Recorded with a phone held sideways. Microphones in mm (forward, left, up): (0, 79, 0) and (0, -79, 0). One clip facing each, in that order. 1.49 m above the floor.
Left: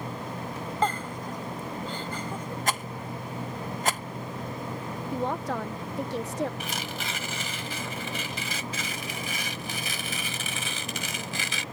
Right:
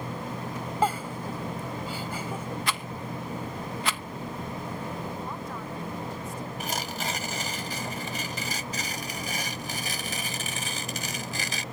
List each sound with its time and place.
0.8 s a giggle: 10° right (ahead or behind)
2.7 s a rattle: 45° left (ahead or behind)
5.1 s a woman speaking: 75° left (ahead or behind)
6.6 s tearing paper: 40° right (ahead or behind)